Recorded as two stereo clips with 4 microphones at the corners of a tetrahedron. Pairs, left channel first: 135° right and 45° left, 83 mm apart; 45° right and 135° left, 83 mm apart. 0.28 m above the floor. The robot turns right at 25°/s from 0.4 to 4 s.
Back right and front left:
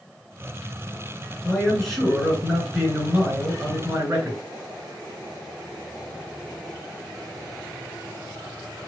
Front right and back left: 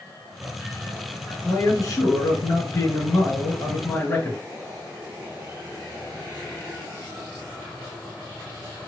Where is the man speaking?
65° right, 1.7 m; by 4.4 s straight ahead, 1.7 m.